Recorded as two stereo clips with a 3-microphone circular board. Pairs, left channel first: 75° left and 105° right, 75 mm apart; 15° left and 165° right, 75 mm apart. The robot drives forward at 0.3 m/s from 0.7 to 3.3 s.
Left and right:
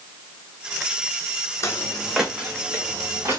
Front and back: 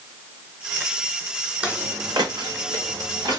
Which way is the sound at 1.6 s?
120° left.